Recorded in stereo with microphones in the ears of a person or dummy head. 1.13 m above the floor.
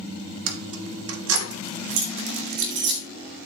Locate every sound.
0.5 s keys jangling: 75° right (ahead or behind), 2.5 m; by 3.0 s 65° right (ahead or behind), 3.5 m